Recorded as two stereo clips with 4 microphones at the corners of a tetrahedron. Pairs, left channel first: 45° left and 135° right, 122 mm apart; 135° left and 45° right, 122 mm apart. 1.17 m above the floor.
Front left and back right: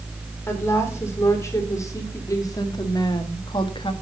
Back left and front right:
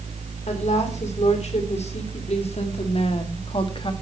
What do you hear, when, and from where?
0.5 s a woman speaking: 115° left, 3.5 m; by 3.9 s 90° left, 1.5 m